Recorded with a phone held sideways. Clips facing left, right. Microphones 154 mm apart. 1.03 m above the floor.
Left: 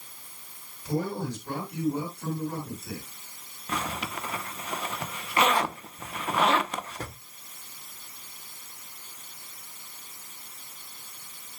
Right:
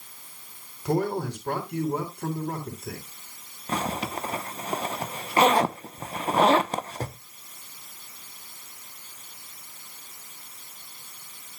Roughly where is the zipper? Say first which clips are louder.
Right 4 dB; right.